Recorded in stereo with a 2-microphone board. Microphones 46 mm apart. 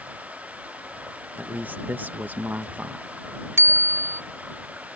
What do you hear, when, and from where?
0.0 s running water: 30° right (ahead or behind)
1.4 s a man speaking: 40° right (ahead or behind)
3.6 s a bicycle bell: 90° right